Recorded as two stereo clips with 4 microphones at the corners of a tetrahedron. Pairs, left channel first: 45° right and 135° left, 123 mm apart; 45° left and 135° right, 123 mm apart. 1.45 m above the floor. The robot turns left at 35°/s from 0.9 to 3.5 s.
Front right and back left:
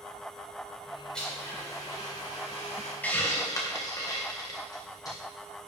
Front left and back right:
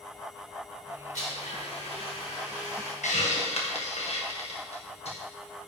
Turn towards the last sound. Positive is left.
turn(degrees=15)